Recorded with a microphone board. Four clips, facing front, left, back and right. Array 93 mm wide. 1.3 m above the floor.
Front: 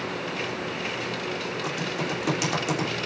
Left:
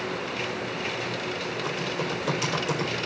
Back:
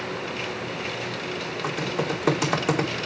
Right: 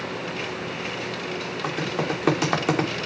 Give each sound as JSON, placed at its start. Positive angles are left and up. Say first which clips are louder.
{"t": 1.6, "sound": "typing on a keyboard", "louder": "right 5 dB, back 5 dB", "azimuth_deg": -120, "distance_m": 3.5}